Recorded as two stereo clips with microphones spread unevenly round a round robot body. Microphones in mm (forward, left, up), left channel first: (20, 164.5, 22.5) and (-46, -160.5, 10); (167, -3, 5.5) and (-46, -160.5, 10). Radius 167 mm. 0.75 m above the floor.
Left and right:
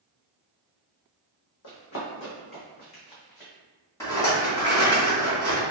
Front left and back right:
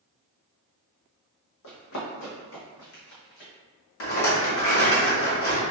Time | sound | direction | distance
1.6 | running footsteps | 40° left | 1.9 m
4.0 | a rattle | 5° right | 1.4 m